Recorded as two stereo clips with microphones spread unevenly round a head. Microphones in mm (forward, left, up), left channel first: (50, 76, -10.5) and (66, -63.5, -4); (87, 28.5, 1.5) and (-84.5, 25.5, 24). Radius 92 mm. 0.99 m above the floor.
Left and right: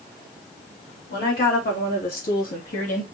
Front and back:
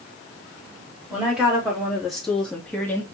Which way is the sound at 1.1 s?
95° left.